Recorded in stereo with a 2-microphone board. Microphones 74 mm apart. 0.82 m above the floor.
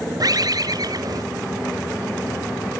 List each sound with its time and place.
0.2 s a bird: 55° right (ahead or behind), 0.8 m